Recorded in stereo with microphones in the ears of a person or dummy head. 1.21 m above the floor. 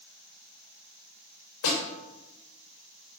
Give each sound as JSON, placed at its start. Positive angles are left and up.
{"t": 1.6, "sound": "a snare drum", "side_deg": 80, "distance_m": 6.0}